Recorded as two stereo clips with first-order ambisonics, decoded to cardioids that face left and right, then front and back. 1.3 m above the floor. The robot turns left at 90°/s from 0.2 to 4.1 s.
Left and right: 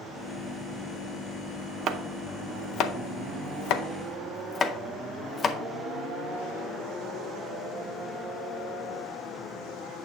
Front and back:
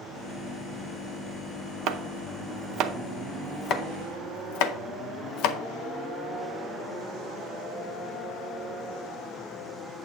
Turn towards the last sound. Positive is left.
turn(degrees=20)